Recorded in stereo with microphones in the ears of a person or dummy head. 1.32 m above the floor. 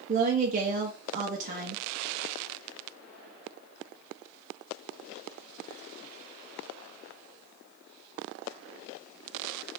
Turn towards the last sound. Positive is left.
turn(degrees=-35)  # may be behind; listen again after turning